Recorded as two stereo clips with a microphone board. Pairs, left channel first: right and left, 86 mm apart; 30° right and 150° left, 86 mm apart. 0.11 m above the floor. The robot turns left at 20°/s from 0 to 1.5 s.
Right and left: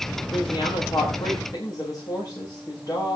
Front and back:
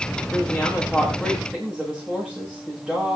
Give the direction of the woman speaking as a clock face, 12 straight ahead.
4 o'clock.